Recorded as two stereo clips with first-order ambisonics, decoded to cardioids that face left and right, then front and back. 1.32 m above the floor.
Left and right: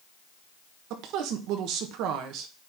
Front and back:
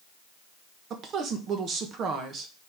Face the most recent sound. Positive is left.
turn(degrees=-125)